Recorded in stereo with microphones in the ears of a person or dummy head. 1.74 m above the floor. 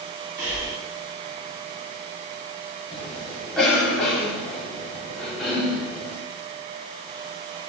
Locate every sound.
0.4 s breathing: 80° right, 6.5 m
2.9 s a cough: 5° left (ahead or behind), 4.5 m